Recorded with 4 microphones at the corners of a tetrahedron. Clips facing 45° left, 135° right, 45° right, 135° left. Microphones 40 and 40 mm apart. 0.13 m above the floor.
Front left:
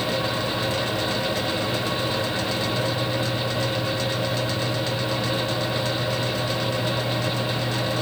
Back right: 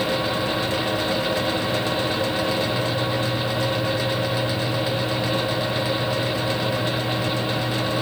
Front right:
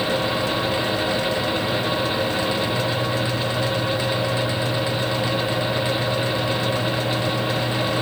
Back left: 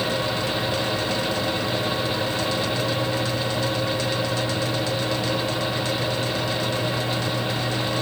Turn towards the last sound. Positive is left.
No sound to turn to.